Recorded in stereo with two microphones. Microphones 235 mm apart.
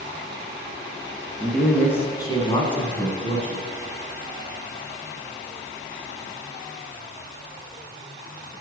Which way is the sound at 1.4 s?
Centre (ahead or behind).